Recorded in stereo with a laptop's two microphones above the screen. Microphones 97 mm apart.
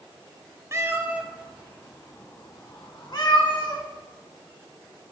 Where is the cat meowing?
30° right (ahead or behind), 1.0 m; by 3.8 s 60° left (ahead or behind), 1.8 m.